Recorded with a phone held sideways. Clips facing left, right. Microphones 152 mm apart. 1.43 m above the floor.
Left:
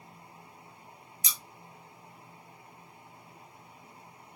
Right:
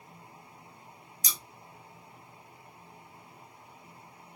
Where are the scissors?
35° right (ahead or behind), 0.6 m.